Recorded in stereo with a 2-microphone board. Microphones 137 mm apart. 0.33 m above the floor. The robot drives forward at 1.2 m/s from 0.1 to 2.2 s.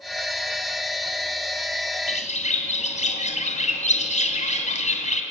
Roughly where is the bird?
Left.